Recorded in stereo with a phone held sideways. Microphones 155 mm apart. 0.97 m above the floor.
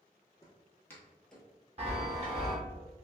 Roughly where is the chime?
Right.